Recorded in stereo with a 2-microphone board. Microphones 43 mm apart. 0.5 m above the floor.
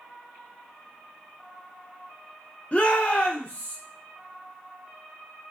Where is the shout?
30° left (ahead or behind), 0.7 m.